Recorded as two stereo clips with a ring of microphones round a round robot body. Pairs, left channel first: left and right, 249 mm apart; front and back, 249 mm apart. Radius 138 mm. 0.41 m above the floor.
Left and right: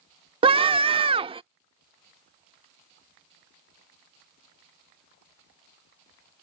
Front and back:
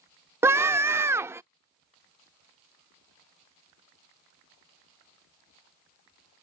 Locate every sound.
0.4 s a scream: 115° right